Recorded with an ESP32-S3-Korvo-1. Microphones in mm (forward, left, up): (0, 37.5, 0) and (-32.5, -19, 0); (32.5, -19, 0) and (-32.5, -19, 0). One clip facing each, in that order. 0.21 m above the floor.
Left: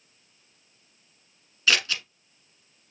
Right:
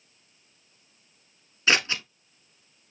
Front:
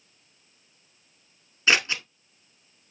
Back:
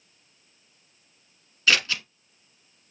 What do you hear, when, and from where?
1.7 s scissors: 60° right, 1.0 m